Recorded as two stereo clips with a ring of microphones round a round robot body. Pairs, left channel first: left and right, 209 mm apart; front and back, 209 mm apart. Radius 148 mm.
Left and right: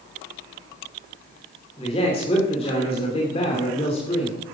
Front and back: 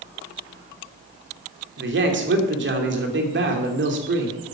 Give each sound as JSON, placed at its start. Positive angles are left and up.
{"t": 1.8, "sound": "a man speaking", "azimuth_deg": 160, "distance_m": 2.5}